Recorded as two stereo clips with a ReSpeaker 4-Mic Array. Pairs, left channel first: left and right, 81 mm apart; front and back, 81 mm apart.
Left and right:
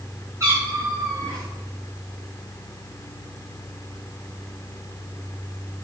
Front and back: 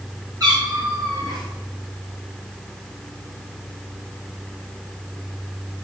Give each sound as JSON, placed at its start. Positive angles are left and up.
{"t": 0.4, "sound": "a cat meowing", "azimuth_deg": -140, "distance_m": 5.5}